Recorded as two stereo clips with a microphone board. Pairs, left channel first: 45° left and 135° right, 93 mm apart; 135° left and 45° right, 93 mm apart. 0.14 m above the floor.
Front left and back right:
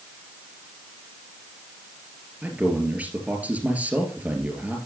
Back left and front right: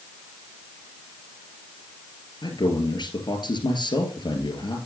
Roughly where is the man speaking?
Behind left.